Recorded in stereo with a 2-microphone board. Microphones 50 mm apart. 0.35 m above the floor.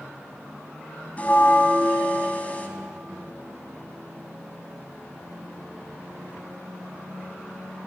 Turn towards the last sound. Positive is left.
turn(degrees=30)  # may be behind; listen again after turning